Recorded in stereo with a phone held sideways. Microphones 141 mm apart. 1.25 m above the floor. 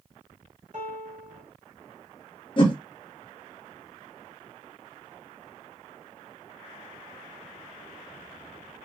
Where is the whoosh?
35° left (ahead or behind), 0.5 m.